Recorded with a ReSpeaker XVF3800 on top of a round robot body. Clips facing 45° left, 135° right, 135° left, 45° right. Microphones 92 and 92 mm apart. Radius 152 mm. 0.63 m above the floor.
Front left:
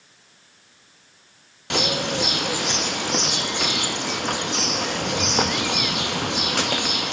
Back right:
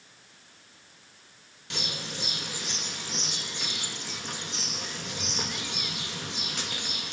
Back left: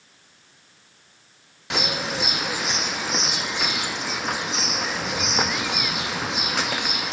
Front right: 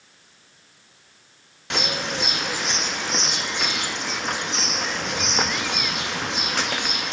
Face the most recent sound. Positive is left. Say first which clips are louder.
# front left 14 dB, even
turn(degrees=45)